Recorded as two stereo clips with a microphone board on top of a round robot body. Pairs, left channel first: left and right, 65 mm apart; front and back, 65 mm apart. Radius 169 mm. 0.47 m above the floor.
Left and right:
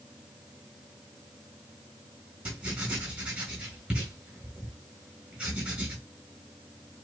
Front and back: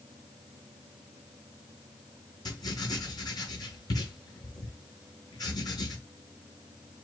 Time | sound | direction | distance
2.5 | writing | 25° right | 3.5 m